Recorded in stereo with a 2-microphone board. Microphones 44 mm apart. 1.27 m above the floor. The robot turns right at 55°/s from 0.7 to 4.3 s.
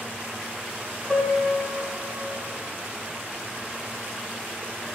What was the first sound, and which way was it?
A piano, 150° left.